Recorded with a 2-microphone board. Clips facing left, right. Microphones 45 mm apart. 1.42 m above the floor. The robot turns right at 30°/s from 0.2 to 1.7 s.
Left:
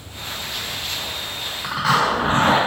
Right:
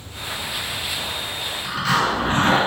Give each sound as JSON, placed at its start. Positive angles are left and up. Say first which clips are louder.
{"t": 1.6, "sound": "a zipper", "louder": "left 2 dB", "side_deg": 70, "distance_m": 1.2}